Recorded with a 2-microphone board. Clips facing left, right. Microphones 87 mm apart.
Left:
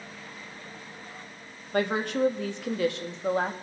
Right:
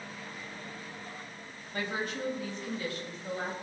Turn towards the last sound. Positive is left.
turn(degrees=75)  # may be behind; listen again after turning